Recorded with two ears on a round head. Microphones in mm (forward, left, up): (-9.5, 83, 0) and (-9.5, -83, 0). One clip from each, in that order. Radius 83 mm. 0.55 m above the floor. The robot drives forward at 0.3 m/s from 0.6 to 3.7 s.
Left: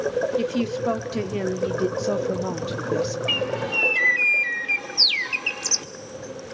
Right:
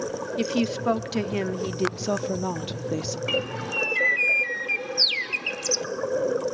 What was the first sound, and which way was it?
A woman speaking, 15° right (ahead or behind).